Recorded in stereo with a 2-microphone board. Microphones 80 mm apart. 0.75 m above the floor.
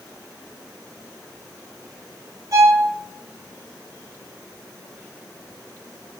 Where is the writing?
I don't hear writing.